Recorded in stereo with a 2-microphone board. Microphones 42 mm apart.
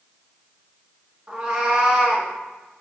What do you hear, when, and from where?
1.3 s a cat meowing: 15° right (ahead or behind), 1.3 m